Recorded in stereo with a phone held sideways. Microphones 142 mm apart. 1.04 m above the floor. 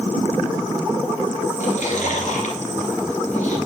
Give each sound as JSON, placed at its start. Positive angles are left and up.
{"t": 1.6, "sound": "chewing", "side_deg": 65, "distance_m": 2.5}